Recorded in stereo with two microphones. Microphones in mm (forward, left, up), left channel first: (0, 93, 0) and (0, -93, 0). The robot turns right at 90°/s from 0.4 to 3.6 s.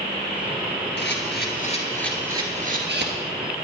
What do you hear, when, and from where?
1.0 s a camera shutter: 70° left (ahead or behind), 3 m; by 3.1 s 75° right (ahead or behind), 3 m